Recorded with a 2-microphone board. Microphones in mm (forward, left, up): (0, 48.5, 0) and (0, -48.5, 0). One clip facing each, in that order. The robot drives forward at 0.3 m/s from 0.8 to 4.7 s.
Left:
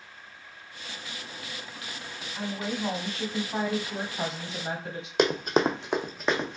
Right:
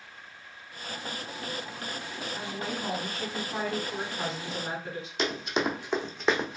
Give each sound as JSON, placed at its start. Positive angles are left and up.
{"t": 2.4, "sound": "a woman speaking", "side_deg": 20, "distance_m": 1.2}
{"t": 5.2, "sound": "running footsteps", "side_deg": 65, "distance_m": 0.6}